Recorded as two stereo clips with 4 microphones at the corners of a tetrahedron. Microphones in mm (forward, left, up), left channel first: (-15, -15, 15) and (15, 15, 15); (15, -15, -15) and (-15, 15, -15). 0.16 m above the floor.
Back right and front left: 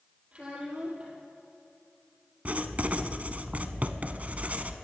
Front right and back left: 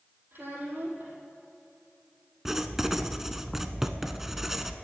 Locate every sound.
0.3 s a child speaking: 105° left, 4.5 m
2.5 s writing: 60° left, 0.6 m